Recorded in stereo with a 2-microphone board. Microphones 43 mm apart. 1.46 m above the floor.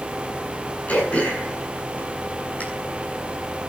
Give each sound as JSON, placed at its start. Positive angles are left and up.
{"t": 0.9, "sound": "throat clearing", "side_deg": 30, "distance_m": 8.0}